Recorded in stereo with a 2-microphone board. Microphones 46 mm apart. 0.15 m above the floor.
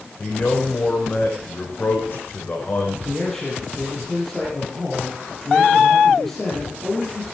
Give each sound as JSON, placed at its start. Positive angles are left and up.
{"t": 0.2, "sound": "a man speaking", "side_deg": 50, "distance_m": 6.0}
{"t": 3.0, "sound": "a man speaking", "side_deg": 5, "distance_m": 5.5}